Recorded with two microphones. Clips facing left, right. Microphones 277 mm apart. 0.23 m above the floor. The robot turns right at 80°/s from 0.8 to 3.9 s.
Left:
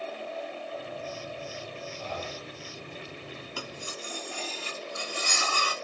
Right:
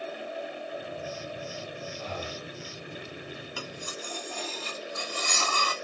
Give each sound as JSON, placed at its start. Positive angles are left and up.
{"t": 2.0, "sound": "breathing", "side_deg": 0, "distance_m": 1.2}
{"t": 3.6, "sound": "cutlery clinking", "side_deg": -10, "distance_m": 1.1}